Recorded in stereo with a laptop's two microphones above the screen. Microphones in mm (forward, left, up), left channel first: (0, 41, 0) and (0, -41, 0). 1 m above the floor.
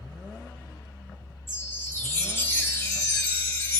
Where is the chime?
25° left (ahead or behind), 1.1 m.